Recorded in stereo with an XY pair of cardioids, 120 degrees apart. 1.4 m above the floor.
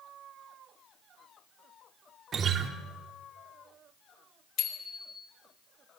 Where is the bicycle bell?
65° left, 4 m.